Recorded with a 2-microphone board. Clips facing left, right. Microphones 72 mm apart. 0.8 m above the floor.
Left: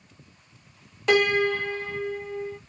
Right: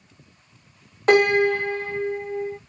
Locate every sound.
1.1 s a piano: 40° right (ahead or behind), 1.0 m